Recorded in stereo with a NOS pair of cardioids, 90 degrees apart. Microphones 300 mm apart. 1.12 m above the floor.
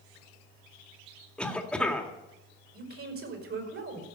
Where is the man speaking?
50° right, 5 m.